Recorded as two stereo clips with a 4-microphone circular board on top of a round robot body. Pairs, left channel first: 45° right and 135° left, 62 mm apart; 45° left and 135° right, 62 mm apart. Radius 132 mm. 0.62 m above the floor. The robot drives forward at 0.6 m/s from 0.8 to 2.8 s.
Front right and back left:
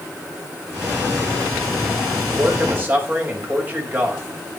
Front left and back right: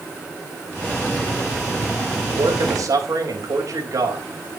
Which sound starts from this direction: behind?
A man speaking, at 2.3 s.